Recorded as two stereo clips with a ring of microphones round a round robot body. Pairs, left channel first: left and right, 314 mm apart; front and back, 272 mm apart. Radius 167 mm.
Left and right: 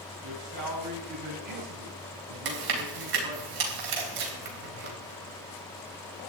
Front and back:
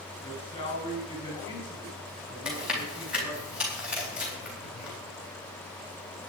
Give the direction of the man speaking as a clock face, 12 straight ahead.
3 o'clock.